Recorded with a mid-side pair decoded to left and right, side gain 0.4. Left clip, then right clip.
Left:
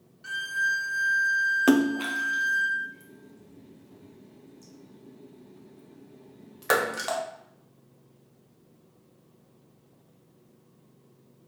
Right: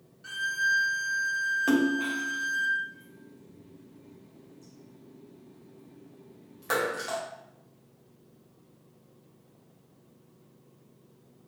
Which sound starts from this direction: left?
A splash, at 1.7 s.